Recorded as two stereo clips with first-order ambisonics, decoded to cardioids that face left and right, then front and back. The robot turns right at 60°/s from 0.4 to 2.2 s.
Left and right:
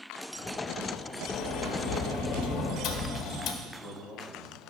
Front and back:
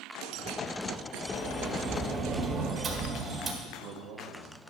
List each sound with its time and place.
1.3 s a sliding door: 65° left, 1.5 m; by 3.5 s 115° left, 1.5 m
3.6 s a man speaking: 165° right, 2 m